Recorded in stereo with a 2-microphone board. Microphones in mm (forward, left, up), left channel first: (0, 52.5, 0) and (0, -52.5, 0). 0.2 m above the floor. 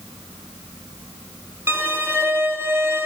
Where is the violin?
25° right (ahead or behind), 1.0 m.